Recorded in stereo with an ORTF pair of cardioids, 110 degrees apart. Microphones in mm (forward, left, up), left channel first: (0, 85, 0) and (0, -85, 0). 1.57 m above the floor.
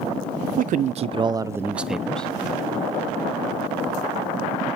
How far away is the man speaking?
About 0.8 m.